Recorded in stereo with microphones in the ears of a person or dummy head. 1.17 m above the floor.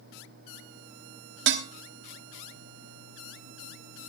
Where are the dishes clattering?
65° right (ahead or behind), 1.6 m.